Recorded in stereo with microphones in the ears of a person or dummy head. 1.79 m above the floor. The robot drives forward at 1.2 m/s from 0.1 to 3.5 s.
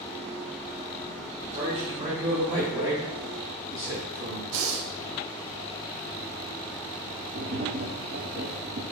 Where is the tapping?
55° right (ahead or behind), 0.9 m.